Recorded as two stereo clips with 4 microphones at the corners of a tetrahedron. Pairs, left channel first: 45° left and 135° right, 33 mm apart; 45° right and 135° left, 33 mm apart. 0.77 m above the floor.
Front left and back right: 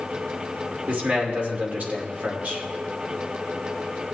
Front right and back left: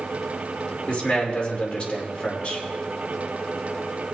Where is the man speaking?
100° right, 2.5 m.